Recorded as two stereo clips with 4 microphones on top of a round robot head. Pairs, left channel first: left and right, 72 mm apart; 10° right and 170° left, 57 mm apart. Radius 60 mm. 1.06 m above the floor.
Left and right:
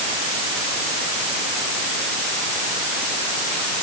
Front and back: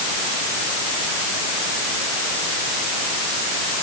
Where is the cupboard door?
No cupboard door in this recording.